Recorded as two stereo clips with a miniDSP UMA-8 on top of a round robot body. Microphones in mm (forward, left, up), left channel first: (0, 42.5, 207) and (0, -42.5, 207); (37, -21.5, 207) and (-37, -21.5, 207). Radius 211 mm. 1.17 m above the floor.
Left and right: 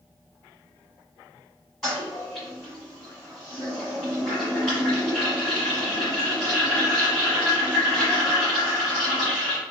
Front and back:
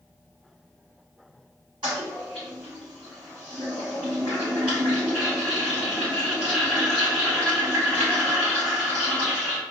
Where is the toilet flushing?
Straight behind, 1.4 m.